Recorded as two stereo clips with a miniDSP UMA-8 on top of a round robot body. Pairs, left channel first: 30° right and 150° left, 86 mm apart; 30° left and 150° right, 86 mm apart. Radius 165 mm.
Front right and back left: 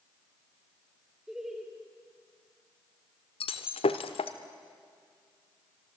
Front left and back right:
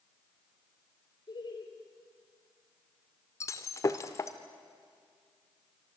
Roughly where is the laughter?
Ahead left.